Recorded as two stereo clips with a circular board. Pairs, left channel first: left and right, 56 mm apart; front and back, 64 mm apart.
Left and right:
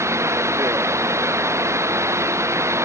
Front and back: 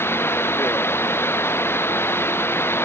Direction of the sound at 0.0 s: 55° right.